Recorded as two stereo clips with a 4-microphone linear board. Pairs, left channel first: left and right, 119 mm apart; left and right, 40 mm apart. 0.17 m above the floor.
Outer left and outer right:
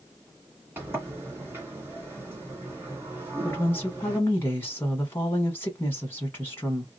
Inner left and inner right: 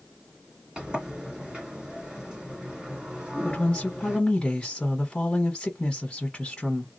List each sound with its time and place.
0.8 s a sliding door: 20° right (ahead or behind), 1.6 m
3.4 s a woman speaking: 20° left (ahead or behind), 1.1 m